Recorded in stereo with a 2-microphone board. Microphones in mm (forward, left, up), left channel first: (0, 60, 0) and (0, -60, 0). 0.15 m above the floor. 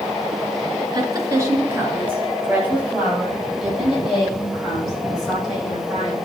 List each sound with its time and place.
0.9 s a woman speaking: 35° right (ahead or behind), 1.6 m; by 6.2 s centre (ahead or behind), 7.5 m